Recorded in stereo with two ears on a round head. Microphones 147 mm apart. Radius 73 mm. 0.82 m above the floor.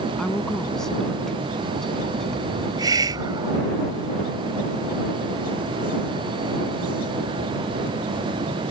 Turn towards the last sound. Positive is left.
turn(degrees=-25)  # may be behind; listen again after turning